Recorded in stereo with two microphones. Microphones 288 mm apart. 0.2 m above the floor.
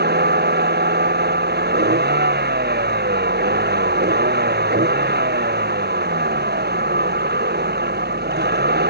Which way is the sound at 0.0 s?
35° right (ahead or behind).